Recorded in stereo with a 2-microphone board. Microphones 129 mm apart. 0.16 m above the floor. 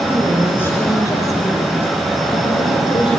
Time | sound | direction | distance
0.1 | a woman speaking | 10° left (ahead or behind) | 4 m